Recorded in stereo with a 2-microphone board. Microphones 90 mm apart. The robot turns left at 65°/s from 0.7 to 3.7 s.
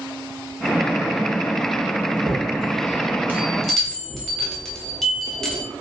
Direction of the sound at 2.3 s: 90° right.